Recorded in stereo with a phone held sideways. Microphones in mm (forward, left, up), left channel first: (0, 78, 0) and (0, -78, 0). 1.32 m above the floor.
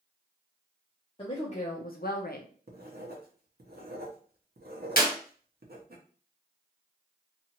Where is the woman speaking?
35° left (ahead or behind), 0.8 m; by 2.5 s 65° left (ahead or behind), 0.6 m.